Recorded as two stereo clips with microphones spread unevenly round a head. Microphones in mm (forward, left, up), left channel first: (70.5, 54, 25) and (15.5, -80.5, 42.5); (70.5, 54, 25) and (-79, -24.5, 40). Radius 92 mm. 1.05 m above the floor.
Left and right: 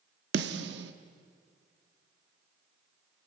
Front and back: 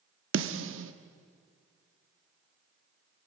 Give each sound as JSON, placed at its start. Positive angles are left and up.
{"t": 0.3, "sound": "a snare drum", "azimuth_deg": -135, "distance_m": 1.1}